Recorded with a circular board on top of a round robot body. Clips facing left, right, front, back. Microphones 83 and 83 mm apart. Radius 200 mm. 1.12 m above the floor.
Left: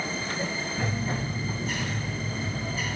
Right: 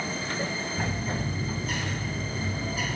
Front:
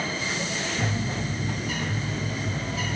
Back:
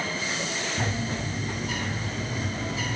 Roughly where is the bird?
Behind.